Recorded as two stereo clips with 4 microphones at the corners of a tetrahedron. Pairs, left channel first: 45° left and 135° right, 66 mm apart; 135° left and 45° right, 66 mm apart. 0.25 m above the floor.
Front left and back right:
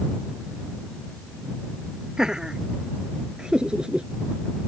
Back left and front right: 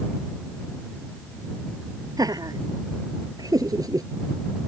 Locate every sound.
2.2 s laughter: 55° right; by 4.1 s 60° right